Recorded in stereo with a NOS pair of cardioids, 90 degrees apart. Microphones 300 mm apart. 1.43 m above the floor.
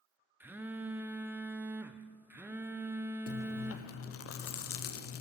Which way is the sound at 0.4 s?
5° right.